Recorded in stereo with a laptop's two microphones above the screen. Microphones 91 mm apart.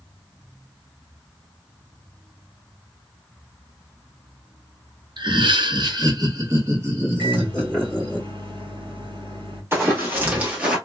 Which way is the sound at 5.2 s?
55° right (ahead or behind).